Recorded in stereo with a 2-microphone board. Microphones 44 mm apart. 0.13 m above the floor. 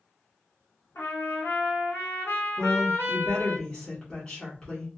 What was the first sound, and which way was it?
A trumpet, 70° left (ahead or behind).